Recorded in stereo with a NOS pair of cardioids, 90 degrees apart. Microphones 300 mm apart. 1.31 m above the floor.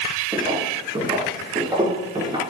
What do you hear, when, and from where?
0.3 s footsteps: 15° right, 7 m